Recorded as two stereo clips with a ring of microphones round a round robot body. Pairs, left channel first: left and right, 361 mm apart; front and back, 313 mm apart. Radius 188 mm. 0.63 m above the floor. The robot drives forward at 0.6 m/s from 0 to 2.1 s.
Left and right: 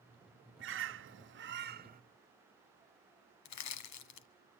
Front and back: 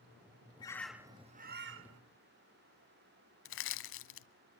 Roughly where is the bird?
Ahead right.